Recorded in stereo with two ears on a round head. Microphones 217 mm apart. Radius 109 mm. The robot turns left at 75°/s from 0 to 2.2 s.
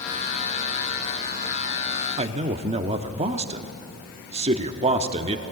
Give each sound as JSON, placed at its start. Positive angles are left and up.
{"t": 2.2, "sound": "a man speaking", "side_deg": -30, "distance_m": 0.9}